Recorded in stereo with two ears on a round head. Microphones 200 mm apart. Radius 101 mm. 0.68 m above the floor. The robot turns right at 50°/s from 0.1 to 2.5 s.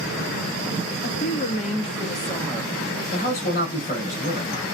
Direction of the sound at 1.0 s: 90° left.